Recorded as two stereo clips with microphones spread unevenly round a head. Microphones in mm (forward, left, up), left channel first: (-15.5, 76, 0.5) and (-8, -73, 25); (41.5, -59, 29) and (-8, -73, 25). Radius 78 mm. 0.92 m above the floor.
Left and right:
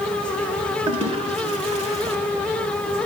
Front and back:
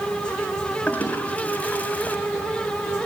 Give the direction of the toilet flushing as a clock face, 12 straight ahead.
1 o'clock.